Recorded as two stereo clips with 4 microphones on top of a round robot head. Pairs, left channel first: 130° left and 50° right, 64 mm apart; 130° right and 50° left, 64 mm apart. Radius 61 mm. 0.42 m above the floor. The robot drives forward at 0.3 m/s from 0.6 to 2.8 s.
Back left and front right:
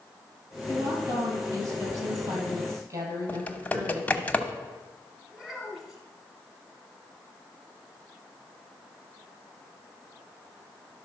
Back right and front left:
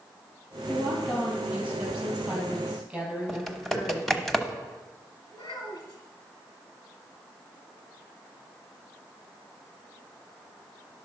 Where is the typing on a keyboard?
145° left, 1.1 m.